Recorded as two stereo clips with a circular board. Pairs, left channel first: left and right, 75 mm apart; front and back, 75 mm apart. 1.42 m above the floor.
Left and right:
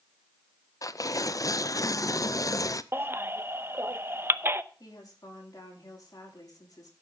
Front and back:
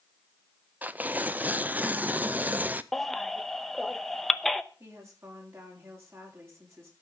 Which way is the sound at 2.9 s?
85° right.